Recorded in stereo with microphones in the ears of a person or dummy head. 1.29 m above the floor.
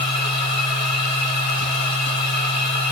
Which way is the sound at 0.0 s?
35° left (ahead or behind).